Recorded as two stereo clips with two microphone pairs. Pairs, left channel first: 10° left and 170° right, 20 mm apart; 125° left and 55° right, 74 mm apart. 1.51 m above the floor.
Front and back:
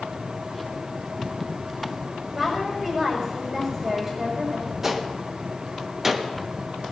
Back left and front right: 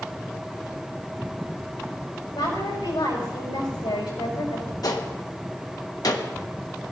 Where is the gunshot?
125° left, 1.2 m.